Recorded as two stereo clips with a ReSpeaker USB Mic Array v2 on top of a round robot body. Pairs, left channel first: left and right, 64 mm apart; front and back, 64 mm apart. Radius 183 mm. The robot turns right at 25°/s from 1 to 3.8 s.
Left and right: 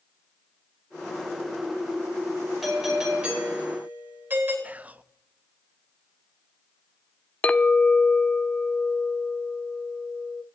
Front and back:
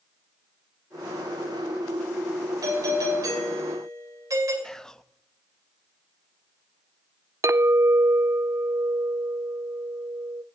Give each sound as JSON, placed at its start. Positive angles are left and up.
{"t": 2.6, "sound": "a doorbell", "azimuth_deg": -175, "distance_m": 6.0}
{"t": 4.6, "sound": "whispering", "azimuth_deg": -70, "distance_m": 0.8}
{"t": 7.4, "sound": "a clink", "azimuth_deg": 155, "distance_m": 0.7}